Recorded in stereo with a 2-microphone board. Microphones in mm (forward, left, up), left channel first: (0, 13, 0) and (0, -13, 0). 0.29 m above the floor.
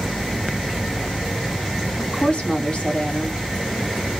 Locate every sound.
2.0 s a woman speaking: 50° left (ahead or behind), 1.6 m